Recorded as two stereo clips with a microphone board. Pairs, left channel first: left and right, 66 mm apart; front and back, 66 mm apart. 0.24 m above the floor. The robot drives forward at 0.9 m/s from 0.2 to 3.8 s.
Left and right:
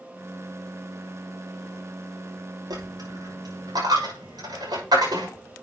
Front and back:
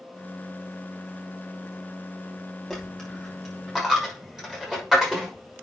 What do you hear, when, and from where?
2.7 s a dropped coin: 90° right, 6 m; by 5.3 s 95° right, 6 m